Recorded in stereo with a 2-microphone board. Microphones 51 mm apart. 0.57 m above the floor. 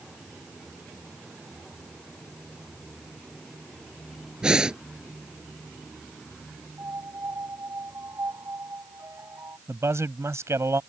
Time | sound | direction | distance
4.4 | breathing | 15° right (ahead or behind) | ?
6.8 | a piano | 75° right (ahead or behind) | ?
9.7 | a man speaking | 75° right (ahead or behind) | ?